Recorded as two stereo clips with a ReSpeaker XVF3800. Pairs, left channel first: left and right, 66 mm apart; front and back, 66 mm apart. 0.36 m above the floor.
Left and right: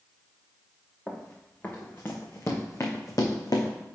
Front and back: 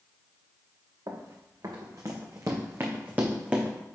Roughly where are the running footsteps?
Behind.